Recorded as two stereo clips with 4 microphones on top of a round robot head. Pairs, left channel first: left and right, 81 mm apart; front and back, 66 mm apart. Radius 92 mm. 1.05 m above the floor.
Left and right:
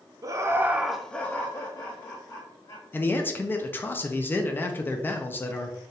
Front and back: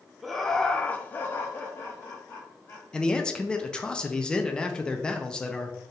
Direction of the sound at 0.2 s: 90° right.